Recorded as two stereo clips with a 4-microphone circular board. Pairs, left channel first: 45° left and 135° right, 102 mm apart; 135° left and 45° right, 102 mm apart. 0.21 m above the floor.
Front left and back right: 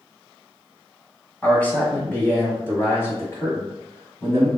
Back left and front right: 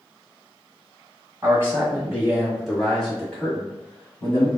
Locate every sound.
1.4 s a man speaking: 15° right, 1.7 m; by 4.5 s 90° left, 1.9 m